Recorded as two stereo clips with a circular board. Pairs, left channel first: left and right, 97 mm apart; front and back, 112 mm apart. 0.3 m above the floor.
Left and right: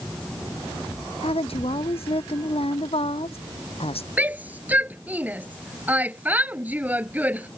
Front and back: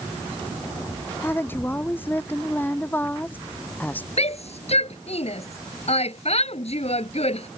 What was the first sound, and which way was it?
A woman speaking, 75° left.